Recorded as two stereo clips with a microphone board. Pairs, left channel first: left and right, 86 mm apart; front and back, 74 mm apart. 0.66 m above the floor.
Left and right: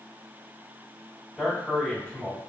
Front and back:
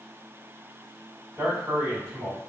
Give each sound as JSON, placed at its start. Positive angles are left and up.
{"t": 1.4, "sound": "a man speaking", "azimuth_deg": 170, "distance_m": 1.8}